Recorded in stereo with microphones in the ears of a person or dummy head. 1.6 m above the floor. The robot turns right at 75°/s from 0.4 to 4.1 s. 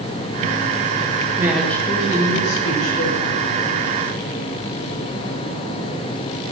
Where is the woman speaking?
15° right, 7 m; by 3.2 s 125° left, 7 m.